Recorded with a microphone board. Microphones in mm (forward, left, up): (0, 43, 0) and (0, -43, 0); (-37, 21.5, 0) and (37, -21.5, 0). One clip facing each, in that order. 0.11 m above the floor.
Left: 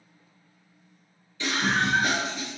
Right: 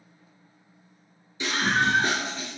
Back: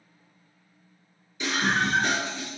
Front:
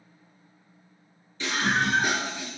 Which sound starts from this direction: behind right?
A scream, at 1.4 s.